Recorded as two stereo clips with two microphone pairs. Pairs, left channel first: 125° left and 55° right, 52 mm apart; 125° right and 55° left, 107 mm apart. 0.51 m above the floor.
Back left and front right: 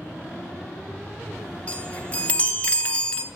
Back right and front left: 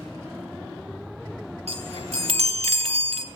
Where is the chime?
65° left, 2.0 m.